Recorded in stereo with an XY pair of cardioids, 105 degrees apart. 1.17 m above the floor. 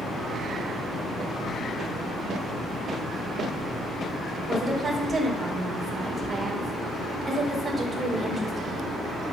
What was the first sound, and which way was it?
A woman speaking, 30° right.